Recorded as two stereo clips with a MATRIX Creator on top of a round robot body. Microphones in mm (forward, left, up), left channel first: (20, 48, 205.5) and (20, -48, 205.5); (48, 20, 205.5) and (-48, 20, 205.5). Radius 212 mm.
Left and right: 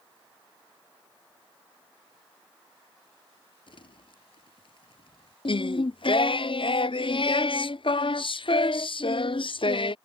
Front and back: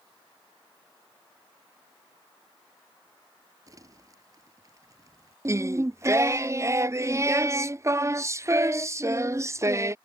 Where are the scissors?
No scissors in this recording.